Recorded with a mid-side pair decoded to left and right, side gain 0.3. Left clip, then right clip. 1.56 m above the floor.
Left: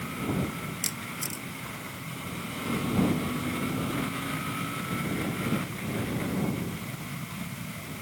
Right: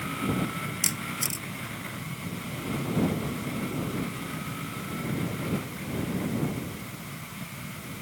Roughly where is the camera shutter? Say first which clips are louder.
Right 5 dB; ahead right.